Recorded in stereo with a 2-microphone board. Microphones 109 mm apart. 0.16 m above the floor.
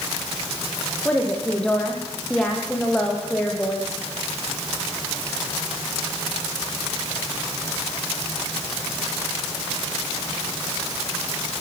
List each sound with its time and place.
1.1 s a woman speaking: 5° left (ahead or behind), 6 m